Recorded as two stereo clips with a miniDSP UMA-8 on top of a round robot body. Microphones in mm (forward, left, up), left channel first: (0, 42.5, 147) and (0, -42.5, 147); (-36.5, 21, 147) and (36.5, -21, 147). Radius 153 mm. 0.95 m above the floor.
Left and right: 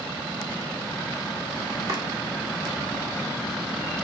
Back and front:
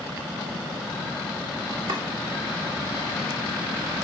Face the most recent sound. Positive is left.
turn(degrees=-50)